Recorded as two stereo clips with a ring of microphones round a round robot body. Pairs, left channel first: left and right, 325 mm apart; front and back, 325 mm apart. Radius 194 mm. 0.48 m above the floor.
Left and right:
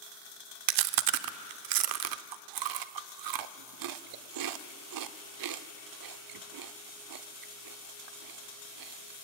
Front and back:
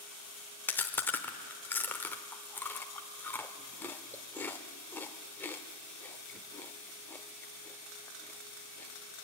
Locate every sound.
0.7 s chewing: 85° right, 0.8 m